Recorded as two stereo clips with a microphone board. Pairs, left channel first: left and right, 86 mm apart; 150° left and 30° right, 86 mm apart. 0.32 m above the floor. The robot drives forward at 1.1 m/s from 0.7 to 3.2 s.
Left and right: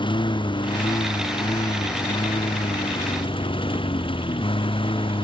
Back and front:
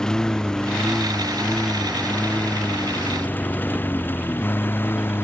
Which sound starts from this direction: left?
A lawn mower, at 0.0 s.